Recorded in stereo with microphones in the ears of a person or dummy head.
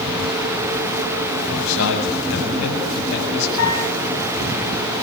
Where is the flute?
80° left, 9.5 m.